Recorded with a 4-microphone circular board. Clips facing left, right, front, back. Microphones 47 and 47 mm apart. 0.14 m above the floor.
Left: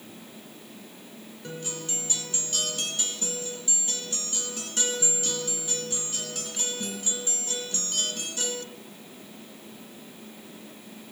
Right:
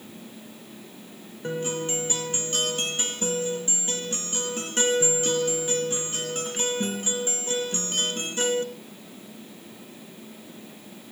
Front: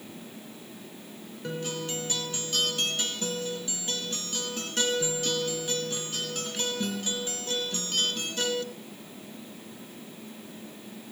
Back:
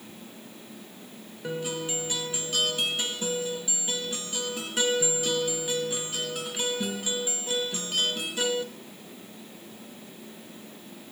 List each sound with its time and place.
1.4 s a guitar: 105° right, 1.6 m